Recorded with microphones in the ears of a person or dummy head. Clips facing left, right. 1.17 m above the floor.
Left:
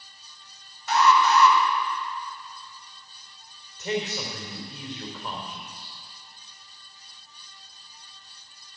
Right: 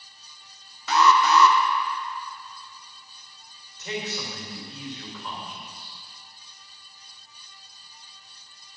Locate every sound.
0.9 s an alarm: 50° right (ahead or behind), 1.1 m
3.8 s a man speaking: 45° left (ahead or behind), 3.5 m